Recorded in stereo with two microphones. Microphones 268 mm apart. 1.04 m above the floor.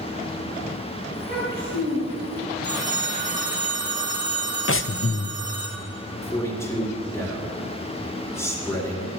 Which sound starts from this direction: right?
A child speaking, at 1.1 s.